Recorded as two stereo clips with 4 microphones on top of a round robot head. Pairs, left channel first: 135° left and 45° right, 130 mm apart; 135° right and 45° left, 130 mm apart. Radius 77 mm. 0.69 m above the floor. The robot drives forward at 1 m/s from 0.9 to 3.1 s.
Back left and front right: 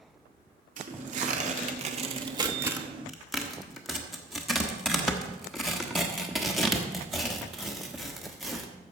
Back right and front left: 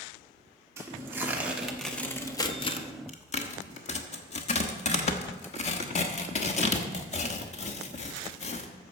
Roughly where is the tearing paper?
Ahead right.